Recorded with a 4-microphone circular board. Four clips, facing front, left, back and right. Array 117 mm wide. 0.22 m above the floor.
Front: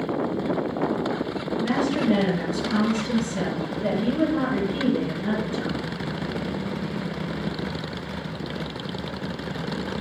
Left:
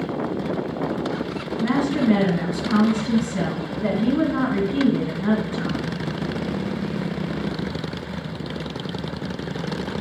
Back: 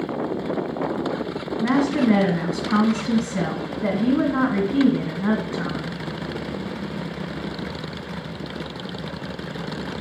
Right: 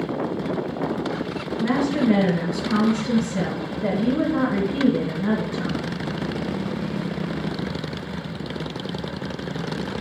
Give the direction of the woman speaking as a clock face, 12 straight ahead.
6 o'clock.